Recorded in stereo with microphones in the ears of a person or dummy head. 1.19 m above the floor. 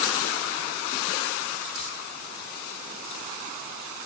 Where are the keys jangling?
30° left (ahead or behind), 2.5 m.